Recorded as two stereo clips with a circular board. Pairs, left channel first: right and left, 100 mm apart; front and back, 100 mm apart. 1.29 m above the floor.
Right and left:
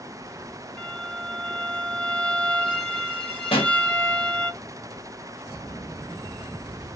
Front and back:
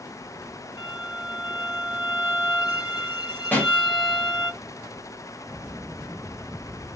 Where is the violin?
15° right, 1.7 m.